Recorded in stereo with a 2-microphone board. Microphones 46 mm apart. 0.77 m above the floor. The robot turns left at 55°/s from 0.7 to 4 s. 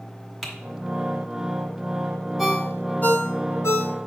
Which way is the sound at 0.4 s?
5° right (ahead or behind).